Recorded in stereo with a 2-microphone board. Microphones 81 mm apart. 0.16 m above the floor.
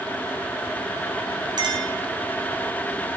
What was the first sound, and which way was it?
A clink, 60° right (ahead or behind).